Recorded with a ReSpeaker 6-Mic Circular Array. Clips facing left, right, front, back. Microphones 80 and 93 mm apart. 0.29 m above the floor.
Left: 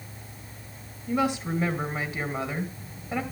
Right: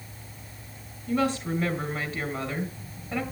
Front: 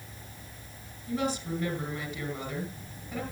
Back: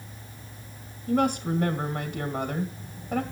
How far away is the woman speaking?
About 2.5 m.